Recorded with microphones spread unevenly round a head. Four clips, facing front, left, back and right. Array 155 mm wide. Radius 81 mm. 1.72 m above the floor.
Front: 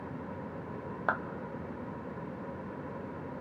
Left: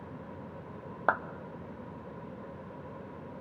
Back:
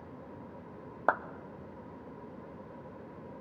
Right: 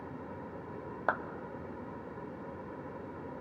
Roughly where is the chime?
No chime in this recording.